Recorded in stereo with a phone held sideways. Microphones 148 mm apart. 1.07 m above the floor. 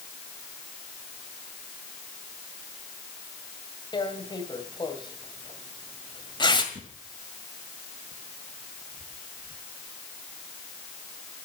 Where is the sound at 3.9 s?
30° left (ahead or behind), 1.9 m.